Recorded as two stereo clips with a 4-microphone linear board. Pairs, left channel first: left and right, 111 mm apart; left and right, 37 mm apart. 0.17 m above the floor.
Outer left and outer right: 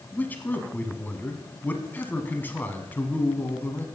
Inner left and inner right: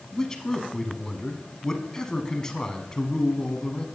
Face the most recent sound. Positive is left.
turn(degrees=20)  # may be behind; listen again after turning